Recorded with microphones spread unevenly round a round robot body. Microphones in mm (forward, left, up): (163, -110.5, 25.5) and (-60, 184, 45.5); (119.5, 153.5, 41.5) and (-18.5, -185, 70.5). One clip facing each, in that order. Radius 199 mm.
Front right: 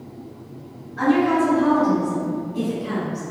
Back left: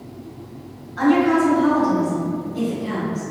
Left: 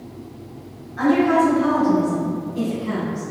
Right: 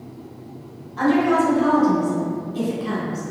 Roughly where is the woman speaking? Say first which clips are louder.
Back left 2 dB, left 1 dB; behind.